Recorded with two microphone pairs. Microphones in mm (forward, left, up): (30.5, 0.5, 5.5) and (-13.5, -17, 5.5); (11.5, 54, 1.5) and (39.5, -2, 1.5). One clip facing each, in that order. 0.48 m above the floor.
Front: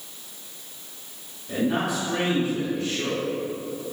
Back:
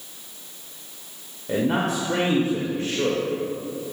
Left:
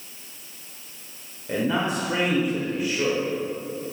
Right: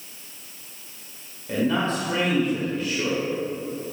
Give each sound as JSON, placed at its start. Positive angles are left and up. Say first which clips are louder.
{"t": 1.5, "sound": "a man speaking", "louder": "back 2 dB, right 1 dB", "azimuth_deg": -175, "distance_m": 1.6}